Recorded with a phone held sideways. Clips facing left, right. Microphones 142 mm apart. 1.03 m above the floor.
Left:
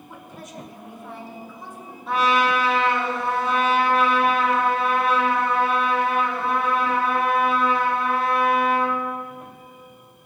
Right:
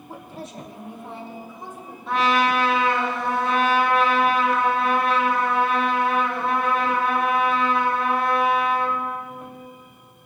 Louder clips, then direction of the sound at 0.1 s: Right 4 dB; 35° right (ahead or behind).